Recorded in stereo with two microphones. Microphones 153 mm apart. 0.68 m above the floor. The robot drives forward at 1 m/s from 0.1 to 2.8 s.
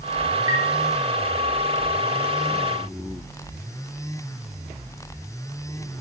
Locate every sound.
0.5 s a chime: 10° left (ahead or behind), 3 m